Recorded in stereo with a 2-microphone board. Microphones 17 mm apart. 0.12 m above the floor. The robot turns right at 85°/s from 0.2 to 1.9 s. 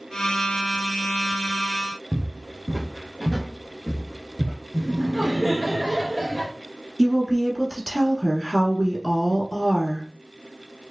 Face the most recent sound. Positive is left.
turn(degrees=10)  # may be behind; listen again after turning